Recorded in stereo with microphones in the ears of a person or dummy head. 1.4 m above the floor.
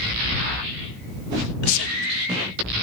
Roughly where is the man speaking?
Left.